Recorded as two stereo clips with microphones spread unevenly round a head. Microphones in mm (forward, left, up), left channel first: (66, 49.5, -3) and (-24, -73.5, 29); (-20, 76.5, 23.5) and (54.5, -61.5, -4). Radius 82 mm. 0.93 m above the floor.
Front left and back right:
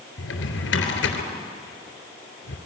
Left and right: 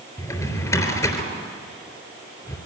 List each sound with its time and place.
0.2 s a drawer: 50° left, 3.5 m